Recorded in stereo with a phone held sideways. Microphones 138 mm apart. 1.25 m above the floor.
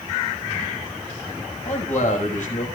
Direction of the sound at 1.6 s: 65° left (ahead or behind).